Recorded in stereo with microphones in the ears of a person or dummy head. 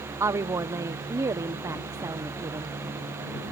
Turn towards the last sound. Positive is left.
turn(degrees=-15)  # may be behind; listen again after turning